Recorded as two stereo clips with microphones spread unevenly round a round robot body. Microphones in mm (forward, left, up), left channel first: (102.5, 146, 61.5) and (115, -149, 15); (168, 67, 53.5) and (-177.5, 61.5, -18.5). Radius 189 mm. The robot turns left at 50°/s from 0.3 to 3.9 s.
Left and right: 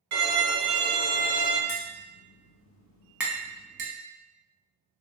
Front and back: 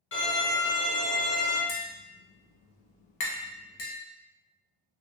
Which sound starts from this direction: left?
Tapping, at 1.7 s.